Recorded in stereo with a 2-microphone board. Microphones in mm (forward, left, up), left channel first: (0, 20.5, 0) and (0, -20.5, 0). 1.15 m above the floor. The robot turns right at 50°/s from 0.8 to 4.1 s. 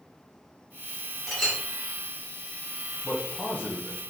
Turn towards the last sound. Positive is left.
turn(degrees=100)